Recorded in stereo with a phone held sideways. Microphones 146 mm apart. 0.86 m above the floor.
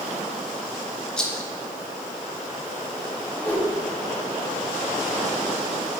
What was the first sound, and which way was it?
A rattle, 5° left (ahead or behind).